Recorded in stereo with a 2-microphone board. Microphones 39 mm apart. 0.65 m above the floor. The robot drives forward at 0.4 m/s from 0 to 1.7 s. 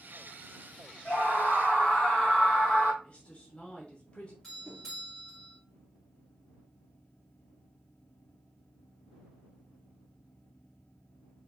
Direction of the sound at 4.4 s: 10° left (ahead or behind).